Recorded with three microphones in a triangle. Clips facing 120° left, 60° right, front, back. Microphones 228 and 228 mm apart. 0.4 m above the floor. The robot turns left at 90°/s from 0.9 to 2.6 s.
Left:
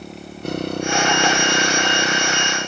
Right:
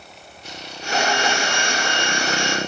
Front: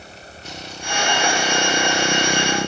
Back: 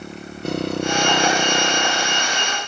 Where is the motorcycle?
150° left; by 2.7 s 20° left.